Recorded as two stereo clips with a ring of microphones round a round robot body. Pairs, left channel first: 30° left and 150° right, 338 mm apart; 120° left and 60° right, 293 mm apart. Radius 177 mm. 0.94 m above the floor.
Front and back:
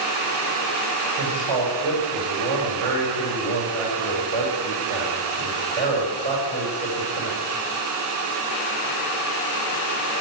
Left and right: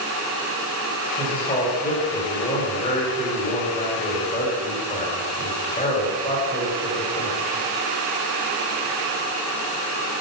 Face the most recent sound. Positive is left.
turn(degrees=-165)